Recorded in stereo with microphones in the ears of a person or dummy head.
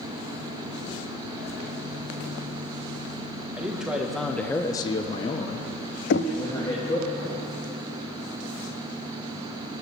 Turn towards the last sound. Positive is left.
turn(degrees=55)  # may be behind; listen again after turning